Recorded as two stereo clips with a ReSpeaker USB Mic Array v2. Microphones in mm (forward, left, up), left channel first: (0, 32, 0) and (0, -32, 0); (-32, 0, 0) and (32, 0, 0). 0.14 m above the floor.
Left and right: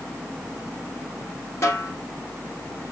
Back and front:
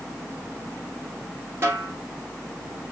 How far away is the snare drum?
About 1.5 m.